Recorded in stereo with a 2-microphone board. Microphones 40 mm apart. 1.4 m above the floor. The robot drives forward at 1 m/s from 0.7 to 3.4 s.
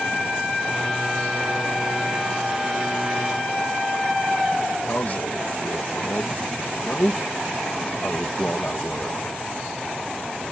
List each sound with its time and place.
4.9 s a man speaking: 50° left (ahead or behind)